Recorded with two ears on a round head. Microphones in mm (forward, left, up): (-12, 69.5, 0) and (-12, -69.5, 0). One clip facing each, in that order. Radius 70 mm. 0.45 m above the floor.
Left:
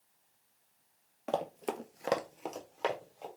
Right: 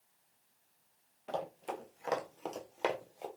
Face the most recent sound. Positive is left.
turn(degrees=-20)  # may be behind; listen again after turning